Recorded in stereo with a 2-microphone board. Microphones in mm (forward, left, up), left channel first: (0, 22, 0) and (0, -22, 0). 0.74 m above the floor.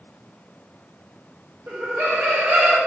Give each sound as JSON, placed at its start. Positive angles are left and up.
{"t": 1.7, "sound": "laughter", "side_deg": -70, "distance_m": 1.8}